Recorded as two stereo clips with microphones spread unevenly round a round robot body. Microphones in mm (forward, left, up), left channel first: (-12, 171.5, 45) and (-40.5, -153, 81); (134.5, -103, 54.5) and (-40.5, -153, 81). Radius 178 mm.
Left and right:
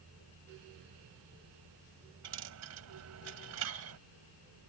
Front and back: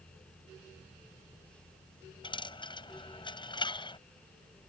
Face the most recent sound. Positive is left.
turn(degrees=-50)